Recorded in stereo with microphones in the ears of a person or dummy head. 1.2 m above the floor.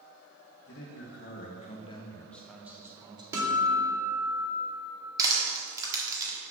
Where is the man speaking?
60° left (ahead or behind), 1.2 m; by 3.2 s 25° right (ahead or behind), 1.2 m.